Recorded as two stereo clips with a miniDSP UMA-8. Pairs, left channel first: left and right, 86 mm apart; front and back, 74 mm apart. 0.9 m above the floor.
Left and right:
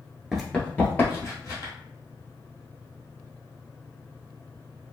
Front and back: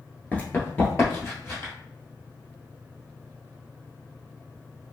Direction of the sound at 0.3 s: 10° right.